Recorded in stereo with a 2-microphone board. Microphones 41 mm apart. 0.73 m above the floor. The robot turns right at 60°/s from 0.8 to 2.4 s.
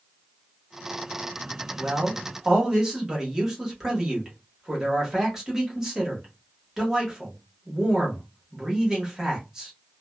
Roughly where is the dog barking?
I don't hear a dog barking.